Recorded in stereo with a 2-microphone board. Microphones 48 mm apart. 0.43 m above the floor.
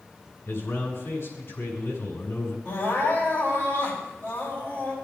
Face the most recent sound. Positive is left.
turn(degrees=40)  # may be behind; listen again after turning